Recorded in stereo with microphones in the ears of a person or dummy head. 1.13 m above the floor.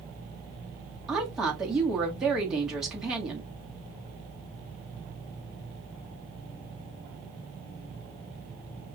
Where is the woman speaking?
5° right (ahead or behind), 1.6 m.